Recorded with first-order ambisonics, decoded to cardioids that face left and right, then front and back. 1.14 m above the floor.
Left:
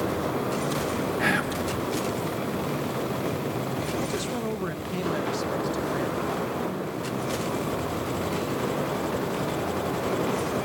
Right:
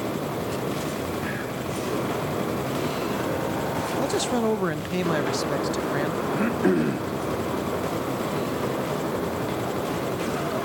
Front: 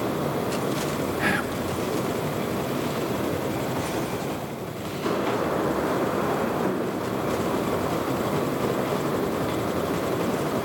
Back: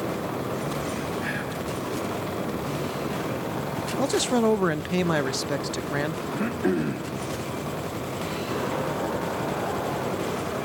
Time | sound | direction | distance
1.2 | whispering | 45° left | 2.5 m
4.0 | a man speaking | 155° right | 0.7 m
6.3 | throat clearing | 110° right | 1.7 m